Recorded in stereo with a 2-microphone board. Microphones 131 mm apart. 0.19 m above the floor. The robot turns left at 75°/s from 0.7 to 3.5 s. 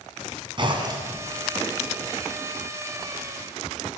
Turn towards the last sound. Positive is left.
turn(degrees=35)